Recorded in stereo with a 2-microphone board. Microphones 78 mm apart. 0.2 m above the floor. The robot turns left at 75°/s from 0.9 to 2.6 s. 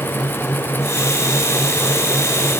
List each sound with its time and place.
Only background noise.